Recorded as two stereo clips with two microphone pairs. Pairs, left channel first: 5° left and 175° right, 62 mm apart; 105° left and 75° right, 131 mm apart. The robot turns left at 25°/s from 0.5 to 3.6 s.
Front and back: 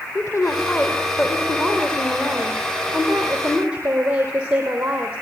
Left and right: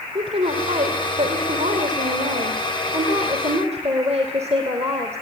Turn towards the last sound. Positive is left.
turn(degrees=-105)